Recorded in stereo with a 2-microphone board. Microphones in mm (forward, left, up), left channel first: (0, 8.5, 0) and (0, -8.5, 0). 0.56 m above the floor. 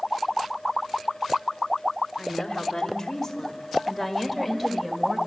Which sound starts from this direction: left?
A woman speaking, at 2.2 s.